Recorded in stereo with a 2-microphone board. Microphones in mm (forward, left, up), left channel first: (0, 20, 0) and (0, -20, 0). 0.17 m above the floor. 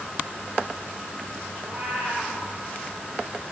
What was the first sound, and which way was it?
A cat meowing, 35° right (ahead or behind).